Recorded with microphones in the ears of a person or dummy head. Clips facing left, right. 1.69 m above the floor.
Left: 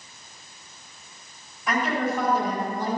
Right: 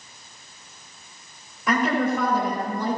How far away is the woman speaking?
About 4.5 m.